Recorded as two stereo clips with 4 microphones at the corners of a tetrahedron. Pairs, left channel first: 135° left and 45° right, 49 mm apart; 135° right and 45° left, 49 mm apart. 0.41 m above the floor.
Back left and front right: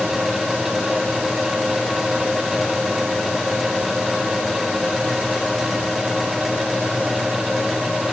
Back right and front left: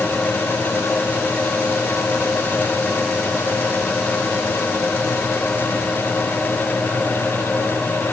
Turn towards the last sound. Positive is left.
No sound to turn to.